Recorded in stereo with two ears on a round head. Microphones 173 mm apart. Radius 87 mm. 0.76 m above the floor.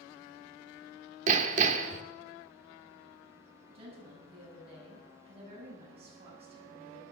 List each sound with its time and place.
1.3 s hammering: 40° right (ahead or behind), 0.9 m
3.7 s a woman speaking: 35° right (ahead or behind), 6.5 m